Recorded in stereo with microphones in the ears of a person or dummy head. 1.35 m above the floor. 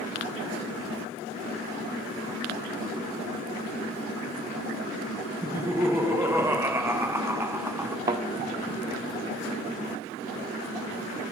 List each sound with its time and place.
5.4 s laughter: 10° right (ahead or behind), 0.6 m
8.1 s a thud: 20° right (ahead or behind), 0.6 m